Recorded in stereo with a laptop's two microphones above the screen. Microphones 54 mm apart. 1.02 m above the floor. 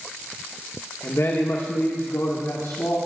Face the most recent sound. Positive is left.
turn(degrees=70)  # may be behind; listen again after turning